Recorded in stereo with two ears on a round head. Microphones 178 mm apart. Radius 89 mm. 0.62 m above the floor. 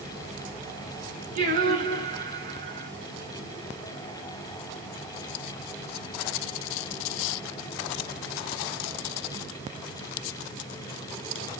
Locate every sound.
1.4 s singing: 40° right (ahead or behind), 8.5 m